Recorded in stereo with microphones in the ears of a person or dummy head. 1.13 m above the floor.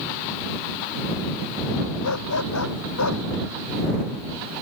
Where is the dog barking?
85° left.